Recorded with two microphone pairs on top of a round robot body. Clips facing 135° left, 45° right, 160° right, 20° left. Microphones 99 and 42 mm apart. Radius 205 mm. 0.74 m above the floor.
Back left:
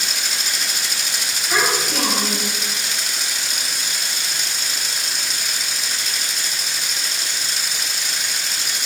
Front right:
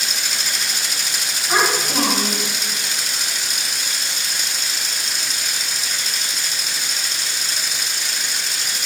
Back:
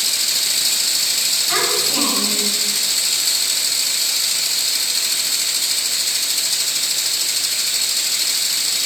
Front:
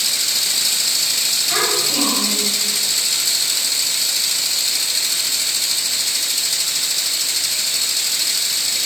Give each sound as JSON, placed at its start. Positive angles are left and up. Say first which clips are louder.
{"t": 1.5, "sound": "a child speaking", "louder": "front right 2 dB, even", "azimuth_deg": -95, "distance_m": 5.5}